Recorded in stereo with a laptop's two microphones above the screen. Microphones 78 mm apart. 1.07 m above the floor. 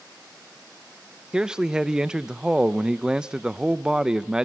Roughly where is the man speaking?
Centre.